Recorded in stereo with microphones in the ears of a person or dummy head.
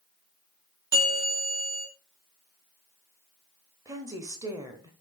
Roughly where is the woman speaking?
Centre.